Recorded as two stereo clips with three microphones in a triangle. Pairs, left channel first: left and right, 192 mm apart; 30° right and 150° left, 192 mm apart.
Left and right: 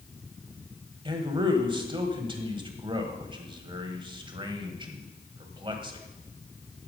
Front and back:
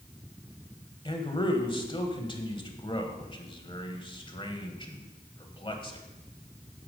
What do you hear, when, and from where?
1.1 s a man speaking: 60° right, 1.3 m